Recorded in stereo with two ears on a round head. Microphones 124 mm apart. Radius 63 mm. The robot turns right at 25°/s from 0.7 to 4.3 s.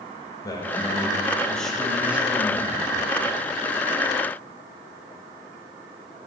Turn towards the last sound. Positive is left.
turn(degrees=-115)